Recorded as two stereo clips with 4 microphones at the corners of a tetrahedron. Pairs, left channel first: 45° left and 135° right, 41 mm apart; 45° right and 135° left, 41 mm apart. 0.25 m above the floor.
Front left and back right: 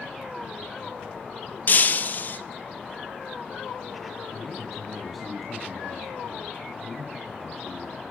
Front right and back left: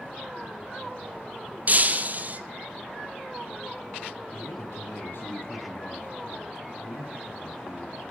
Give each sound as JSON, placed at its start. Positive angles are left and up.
{"t": 1.7, "sound": "breaking glass", "azimuth_deg": 90, "distance_m": 0.8}
{"t": 4.3, "sound": "a man speaking", "azimuth_deg": -45, "distance_m": 1.8}